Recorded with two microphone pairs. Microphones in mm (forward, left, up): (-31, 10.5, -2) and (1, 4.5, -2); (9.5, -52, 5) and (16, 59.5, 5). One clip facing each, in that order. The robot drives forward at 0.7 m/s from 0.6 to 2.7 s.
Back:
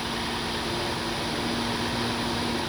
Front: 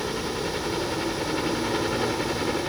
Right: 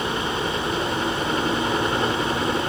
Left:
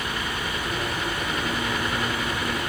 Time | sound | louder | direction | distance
0.0 | a helicopter | front 1 dB, right 5 dB | 45° right | ?